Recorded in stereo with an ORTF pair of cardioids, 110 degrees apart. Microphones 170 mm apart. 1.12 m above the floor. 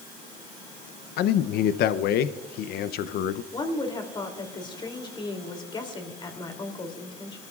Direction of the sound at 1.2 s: 70° left.